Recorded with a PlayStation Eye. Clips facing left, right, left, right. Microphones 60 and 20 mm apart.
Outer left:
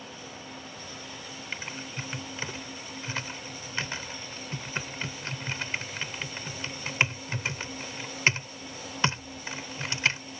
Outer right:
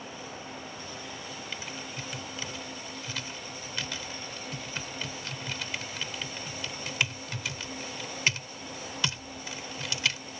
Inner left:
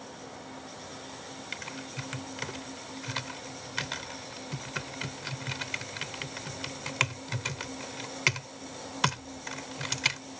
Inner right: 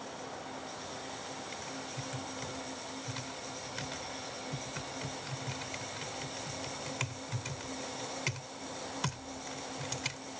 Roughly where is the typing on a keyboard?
Left.